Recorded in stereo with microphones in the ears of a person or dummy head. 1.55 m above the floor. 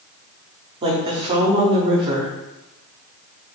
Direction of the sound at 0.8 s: 35° right (ahead or behind).